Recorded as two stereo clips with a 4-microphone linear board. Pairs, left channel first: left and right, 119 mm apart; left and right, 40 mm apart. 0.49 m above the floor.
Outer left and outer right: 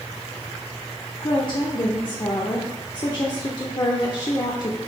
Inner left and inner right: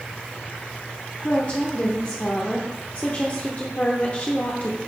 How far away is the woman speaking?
About 0.9 m.